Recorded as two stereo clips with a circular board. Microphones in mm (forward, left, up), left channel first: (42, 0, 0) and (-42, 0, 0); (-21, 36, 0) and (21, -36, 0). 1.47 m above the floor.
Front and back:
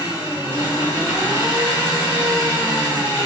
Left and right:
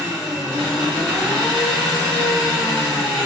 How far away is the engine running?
About 1.8 m.